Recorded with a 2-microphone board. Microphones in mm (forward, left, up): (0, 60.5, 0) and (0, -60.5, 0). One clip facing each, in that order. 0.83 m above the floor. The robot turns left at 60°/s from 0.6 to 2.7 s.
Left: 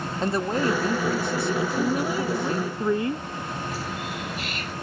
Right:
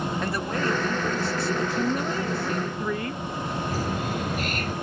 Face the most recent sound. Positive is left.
turn(degrees=-45)  # may be behind; listen again after turning